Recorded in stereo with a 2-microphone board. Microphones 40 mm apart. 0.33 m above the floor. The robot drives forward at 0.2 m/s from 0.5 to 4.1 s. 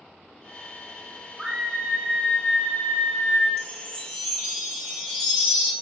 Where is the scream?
10° right (ahead or behind), 1.5 m; by 3.5 s 5° right (ahead or behind), 1.8 m.